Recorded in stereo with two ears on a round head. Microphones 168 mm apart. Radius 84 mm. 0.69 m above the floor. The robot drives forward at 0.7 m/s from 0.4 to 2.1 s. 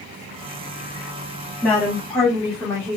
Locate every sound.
1.6 s a woman speaking: 10° left (ahead or behind), 1.1 m